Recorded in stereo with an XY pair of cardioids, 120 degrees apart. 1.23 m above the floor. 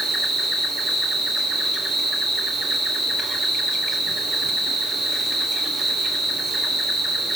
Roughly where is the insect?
Ahead right.